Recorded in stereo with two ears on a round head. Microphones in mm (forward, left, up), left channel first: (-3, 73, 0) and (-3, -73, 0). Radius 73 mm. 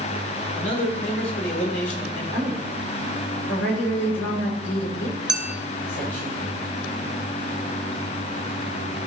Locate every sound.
0.6 s a man speaking: 80° left, 4 m
2.3 s a woman speaking: 80° left, 4 m
5.3 s a clink: 5° right (ahead or behind), 0.8 m